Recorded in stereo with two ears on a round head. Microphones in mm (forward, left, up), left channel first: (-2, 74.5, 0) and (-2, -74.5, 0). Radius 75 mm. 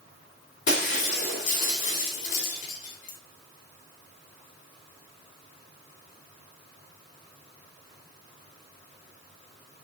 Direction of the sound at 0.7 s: 50° left (ahead or behind).